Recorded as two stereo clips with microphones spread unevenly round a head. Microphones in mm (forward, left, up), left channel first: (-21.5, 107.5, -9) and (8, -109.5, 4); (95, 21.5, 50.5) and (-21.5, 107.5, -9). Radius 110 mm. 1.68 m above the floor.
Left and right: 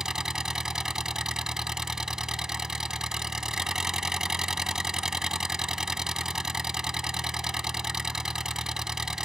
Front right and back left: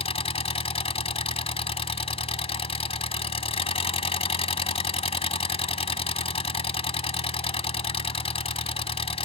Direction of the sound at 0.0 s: 5° left.